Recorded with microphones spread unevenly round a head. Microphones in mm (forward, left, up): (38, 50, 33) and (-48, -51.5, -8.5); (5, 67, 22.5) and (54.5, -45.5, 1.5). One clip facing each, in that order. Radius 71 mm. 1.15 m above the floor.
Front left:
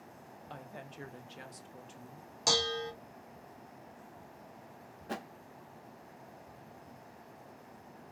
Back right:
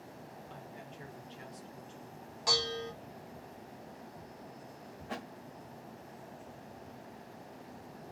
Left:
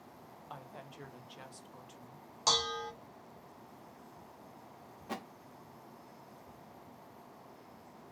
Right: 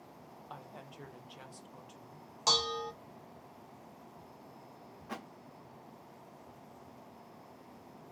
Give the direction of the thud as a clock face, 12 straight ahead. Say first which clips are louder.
Front left 2 dB, left 2 dB; 10 o'clock.